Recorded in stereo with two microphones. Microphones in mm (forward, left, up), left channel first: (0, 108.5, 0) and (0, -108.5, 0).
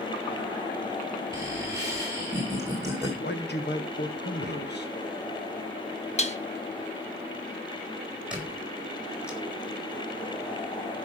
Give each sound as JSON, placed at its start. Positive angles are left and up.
{"t": 1.3, "sound": "laughter", "side_deg": -15, "distance_m": 2.0}
{"t": 3.2, "sound": "a man speaking", "side_deg": 50, "distance_m": 1.4}
{"t": 6.2, "sound": "dishes clattering", "side_deg": 30, "distance_m": 0.9}
{"t": 8.3, "sound": "a squeak", "side_deg": -5, "distance_m": 4.5}